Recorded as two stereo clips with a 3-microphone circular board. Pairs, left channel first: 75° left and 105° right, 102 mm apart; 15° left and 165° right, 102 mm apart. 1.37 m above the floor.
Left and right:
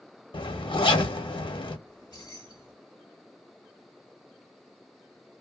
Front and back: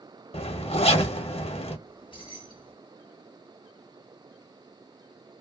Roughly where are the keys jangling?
Ahead left.